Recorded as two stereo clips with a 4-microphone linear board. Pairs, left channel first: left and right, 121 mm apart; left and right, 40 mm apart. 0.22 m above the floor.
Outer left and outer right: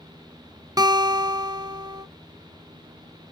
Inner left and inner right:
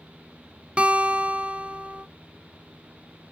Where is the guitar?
30° right (ahead or behind), 0.6 m.